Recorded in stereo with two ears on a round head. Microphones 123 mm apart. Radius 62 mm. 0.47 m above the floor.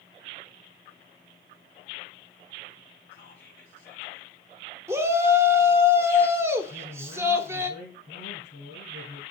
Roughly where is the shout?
Centre.